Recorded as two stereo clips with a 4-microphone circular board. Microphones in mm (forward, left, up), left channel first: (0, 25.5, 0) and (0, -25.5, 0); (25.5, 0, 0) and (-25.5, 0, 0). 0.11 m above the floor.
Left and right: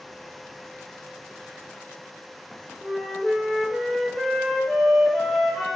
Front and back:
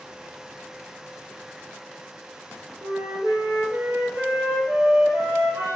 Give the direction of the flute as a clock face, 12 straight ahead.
6 o'clock.